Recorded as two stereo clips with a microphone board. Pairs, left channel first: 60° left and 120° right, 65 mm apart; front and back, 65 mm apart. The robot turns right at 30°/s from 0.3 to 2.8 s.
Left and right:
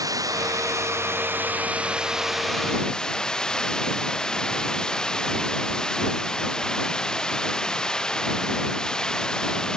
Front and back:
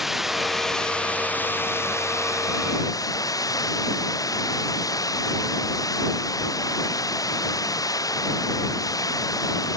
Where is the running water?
95° right; by 9.8 s 20° right.